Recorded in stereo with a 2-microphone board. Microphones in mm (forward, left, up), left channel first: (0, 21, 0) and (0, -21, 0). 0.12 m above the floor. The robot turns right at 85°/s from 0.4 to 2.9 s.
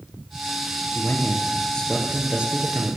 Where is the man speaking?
80° left, 2.5 m; by 3.0 s 110° right, 2.5 m.